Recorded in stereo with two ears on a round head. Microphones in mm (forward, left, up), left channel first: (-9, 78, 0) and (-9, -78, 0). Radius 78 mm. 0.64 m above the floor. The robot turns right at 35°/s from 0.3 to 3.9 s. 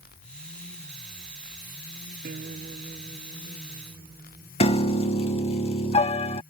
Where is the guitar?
50° right; by 4.5 s 10° left.